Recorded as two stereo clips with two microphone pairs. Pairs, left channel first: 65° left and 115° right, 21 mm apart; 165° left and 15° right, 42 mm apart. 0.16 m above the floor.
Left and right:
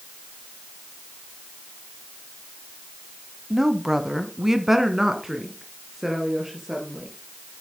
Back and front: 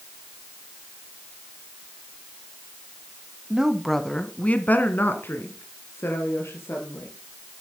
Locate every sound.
3.5 s a woman speaking: 60° right, 1.2 m; by 7.1 s 165° left, 3.5 m